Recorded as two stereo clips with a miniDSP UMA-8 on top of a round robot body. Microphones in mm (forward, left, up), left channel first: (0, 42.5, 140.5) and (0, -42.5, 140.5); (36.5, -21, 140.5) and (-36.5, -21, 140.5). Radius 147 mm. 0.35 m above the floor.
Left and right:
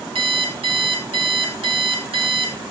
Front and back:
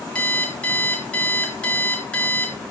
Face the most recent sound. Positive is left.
turn(degrees=-75)